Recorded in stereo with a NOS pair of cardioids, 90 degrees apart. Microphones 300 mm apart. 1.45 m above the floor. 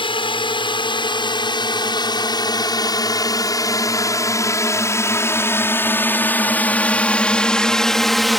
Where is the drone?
15° left; by 8.4 s straight ahead.